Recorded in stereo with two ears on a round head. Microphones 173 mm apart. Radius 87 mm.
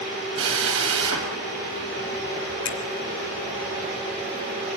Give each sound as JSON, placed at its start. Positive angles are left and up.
{"t": 0.4, "sound": "a drill", "side_deg": -80, "distance_m": 6.5}
{"t": 2.6, "sound": "a finger snap", "side_deg": 60, "distance_m": 3.0}